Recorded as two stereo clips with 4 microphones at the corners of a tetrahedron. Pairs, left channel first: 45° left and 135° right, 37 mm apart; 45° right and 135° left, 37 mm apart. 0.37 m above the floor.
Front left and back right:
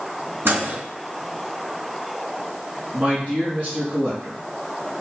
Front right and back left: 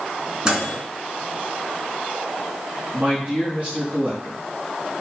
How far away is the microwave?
About 2.5 m.